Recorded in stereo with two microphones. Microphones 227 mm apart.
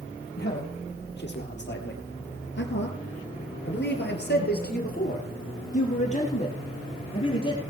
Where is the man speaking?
45° left (ahead or behind), 3 m; by 7.6 s 20° left (ahead or behind), 3 m.